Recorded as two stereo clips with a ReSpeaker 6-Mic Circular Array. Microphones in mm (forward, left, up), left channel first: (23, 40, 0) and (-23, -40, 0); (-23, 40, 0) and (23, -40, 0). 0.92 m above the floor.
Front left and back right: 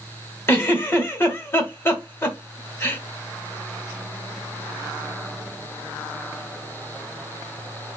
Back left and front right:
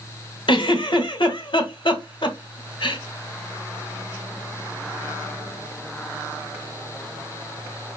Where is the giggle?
120° left, 1.1 m.